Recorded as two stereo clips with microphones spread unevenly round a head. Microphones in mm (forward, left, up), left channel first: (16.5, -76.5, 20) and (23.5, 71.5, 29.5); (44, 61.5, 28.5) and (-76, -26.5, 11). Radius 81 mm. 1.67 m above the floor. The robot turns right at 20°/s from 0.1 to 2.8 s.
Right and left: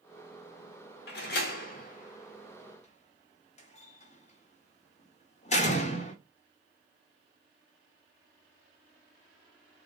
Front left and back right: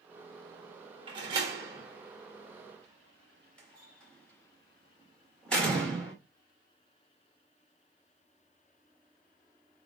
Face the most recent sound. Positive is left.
turn(degrees=-45)